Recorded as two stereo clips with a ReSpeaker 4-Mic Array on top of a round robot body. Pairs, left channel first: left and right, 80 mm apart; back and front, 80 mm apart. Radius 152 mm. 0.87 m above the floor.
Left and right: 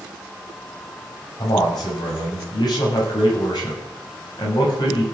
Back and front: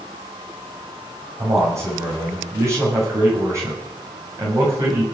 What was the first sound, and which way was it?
A man speaking, 55° left.